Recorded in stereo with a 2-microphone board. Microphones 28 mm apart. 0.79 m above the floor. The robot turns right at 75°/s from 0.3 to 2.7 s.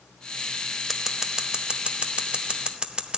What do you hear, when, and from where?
0.9 s scissors: 5° left (ahead or behind), 0.8 m; by 3.2 s 30° right (ahead or behind), 0.8 m